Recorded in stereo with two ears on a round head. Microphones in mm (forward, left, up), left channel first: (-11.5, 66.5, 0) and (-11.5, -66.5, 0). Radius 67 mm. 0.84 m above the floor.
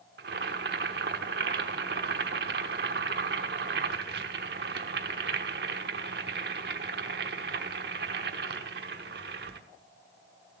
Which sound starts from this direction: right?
Boiling, at 0.2 s.